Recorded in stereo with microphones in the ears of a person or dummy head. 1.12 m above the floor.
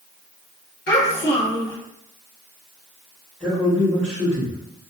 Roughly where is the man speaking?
Centre.